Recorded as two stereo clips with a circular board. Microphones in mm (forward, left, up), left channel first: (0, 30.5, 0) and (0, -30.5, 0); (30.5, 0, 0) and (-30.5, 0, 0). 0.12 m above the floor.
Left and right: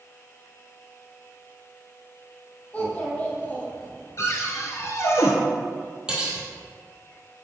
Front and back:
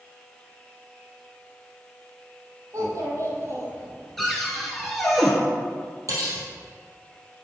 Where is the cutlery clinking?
165° right, 2.5 m.